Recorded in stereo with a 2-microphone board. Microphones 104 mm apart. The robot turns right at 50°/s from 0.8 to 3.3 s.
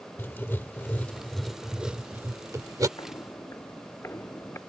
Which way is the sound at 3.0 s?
40° left (ahead or behind).